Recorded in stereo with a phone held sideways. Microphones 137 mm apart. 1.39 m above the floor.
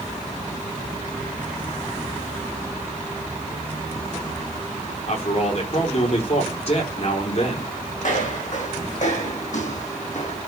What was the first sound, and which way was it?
A man speaking, 55° left (ahead or behind).